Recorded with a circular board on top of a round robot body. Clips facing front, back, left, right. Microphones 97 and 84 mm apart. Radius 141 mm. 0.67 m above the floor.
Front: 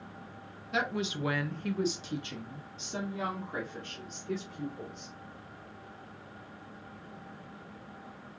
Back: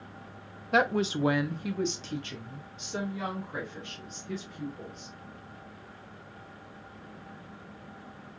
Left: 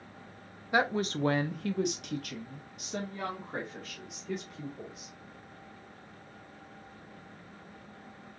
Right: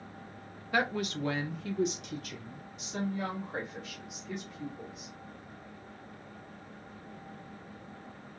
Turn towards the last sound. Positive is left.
turn(degrees=40)